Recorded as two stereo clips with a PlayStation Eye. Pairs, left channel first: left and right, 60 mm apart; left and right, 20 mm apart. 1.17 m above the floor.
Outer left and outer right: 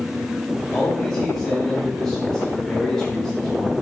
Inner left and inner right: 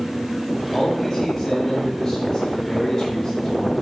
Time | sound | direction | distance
0.7 | a man speaking | 10° left (ahead or behind) | 6.5 m